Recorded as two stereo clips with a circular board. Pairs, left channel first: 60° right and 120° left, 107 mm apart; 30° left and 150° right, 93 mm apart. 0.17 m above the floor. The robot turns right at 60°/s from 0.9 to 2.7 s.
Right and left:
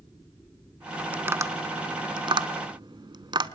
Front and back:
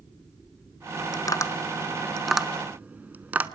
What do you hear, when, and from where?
1.1 s tapping: 50° left, 0.7 m; by 3.5 s 145° left, 0.7 m